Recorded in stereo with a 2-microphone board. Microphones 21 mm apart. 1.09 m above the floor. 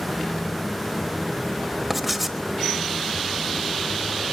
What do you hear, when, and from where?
1.9 s writing: 5° right (ahead or behind), 1.4 m